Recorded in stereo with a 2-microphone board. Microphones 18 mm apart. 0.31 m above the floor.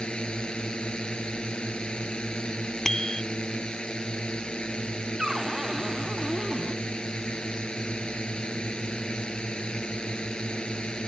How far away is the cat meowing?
No cat meowing in this recording.